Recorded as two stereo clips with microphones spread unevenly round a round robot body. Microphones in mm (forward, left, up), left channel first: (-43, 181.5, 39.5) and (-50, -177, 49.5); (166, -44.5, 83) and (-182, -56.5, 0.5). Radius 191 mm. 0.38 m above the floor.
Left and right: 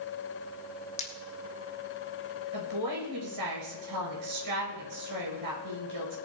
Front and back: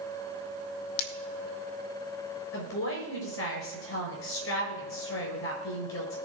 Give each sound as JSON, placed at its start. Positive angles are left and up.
{"t": 1.0, "sound": "breaking glass", "azimuth_deg": 15, "distance_m": 1.3}
{"t": 2.5, "sound": "a woman speaking", "azimuth_deg": -45, "distance_m": 5.5}